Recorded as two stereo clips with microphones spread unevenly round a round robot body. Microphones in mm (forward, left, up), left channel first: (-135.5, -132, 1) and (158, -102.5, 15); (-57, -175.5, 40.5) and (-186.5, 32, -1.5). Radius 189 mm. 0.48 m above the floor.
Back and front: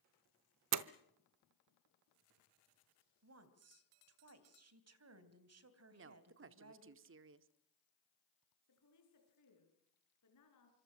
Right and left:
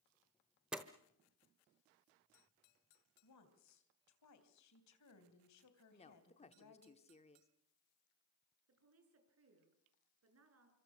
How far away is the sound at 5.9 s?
About 1.0 m.